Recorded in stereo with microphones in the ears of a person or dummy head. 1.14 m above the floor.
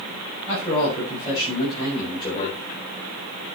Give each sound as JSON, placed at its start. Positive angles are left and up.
{"t": 0.5, "sound": "a man speaking", "side_deg": 20, "distance_m": 6.0}